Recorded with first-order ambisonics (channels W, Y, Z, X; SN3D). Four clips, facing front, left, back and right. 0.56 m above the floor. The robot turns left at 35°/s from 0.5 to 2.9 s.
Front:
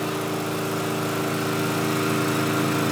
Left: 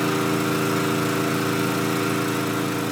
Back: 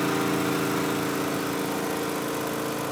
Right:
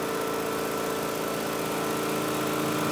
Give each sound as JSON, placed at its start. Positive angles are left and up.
{"t": 0.0, "sound": "an engine running", "azimuth_deg": 95, "distance_m": 5.5}